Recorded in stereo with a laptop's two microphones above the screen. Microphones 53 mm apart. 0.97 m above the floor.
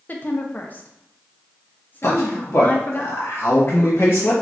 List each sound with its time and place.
0.1 s a woman speaking: 35° left (ahead or behind), 0.5 m
2.0 s a man speaking: 55° left (ahead or behind), 1.0 m